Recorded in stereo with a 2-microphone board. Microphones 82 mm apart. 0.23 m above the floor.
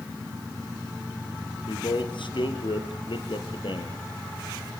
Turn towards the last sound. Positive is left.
turn(degrees=80)